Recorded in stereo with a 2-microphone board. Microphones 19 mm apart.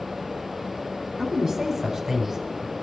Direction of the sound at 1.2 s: 20° right (ahead or behind).